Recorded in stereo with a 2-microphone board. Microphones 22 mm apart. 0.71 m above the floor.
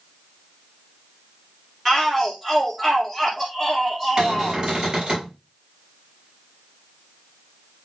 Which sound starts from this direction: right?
A cupboard door, at 4.2 s.